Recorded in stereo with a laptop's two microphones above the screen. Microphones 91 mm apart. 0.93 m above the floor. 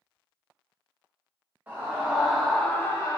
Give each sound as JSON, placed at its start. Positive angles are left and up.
{"t": 1.7, "sound": "a scream", "side_deg": -20, "distance_m": 1.2}